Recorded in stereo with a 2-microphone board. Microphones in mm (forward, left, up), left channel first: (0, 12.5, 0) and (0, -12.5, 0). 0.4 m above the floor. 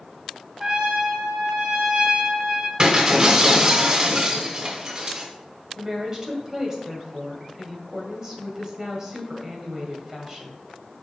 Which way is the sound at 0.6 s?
35° right (ahead or behind).